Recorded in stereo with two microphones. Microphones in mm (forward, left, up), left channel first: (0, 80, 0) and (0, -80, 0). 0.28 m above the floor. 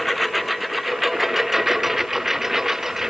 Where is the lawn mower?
Centre (ahead or behind).